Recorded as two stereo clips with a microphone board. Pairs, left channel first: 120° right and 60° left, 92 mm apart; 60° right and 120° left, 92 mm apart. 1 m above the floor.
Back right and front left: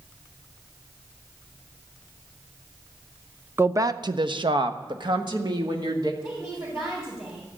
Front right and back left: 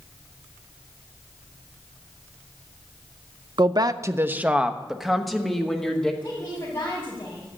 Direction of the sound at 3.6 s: 120° left.